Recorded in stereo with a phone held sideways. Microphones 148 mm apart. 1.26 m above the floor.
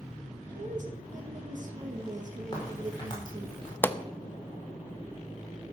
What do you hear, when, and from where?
0.6 s a woman speaking: 60° right (ahead or behind), 1.8 m
2.5 s a crack: 30° left (ahead or behind), 4.5 m
3.8 s a pop: 15° left (ahead or behind), 0.5 m